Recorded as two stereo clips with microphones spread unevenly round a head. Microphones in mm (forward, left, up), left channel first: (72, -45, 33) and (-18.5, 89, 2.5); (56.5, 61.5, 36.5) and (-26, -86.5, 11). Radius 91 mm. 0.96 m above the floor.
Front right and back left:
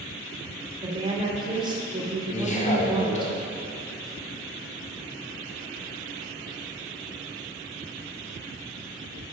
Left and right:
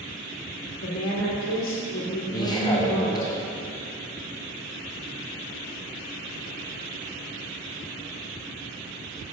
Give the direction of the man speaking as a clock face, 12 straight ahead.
12 o'clock.